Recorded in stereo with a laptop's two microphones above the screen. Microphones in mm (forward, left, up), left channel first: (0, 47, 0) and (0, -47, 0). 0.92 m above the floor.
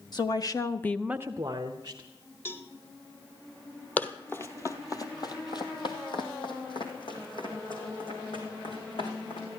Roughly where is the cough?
I don't hear a cough.